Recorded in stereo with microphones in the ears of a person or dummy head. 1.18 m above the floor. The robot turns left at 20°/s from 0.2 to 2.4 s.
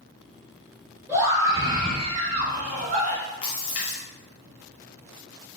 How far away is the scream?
About 1.1 m.